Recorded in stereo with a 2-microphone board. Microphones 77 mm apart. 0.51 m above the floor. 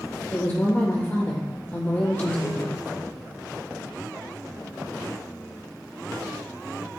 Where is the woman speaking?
30° left (ahead or behind), 1.5 m.